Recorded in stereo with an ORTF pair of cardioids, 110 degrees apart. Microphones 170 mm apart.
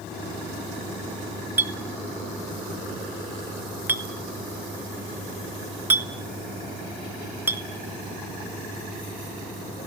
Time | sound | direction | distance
1.6 | a clink | 10° right | 1.4 m